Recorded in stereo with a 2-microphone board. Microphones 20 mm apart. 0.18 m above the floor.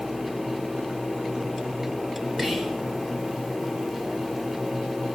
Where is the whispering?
10° right (ahead or behind), 1.1 m.